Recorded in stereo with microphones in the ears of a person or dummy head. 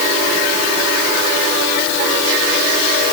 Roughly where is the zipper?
I don't hear a zipper.